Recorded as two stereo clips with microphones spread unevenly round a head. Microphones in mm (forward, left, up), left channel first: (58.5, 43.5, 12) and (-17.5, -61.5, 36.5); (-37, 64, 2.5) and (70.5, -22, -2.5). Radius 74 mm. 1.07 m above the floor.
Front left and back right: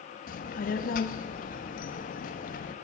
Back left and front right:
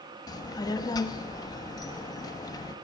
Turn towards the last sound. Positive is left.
turn(degrees=75)